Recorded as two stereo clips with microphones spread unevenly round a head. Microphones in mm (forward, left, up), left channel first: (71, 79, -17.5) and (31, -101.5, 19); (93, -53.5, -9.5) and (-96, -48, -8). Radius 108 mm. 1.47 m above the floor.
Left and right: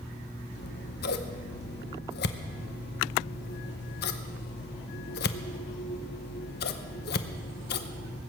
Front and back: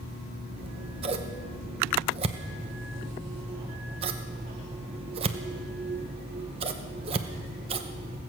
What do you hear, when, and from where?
0.6 s scissors: 120° left, 0.7 m